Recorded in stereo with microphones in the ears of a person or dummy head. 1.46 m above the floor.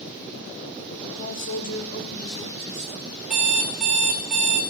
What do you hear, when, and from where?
1.2 s a man speaking: 75° left (ahead or behind), 2.5 m; by 3.2 s 20° left (ahead or behind), 3 m
3.3 s an alarm clock: centre (ahead or behind), 1.1 m